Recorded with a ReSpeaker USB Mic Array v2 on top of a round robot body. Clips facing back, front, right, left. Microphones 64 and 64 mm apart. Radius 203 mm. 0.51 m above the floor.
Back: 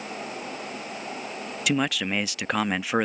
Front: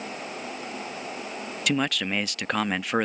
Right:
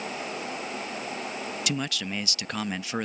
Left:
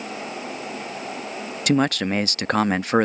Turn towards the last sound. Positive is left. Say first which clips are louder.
# back 1 dB, left 14 dB
turn(degrees=95)